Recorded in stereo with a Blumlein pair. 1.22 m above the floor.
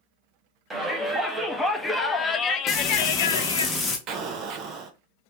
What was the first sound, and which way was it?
A shout, 10° right.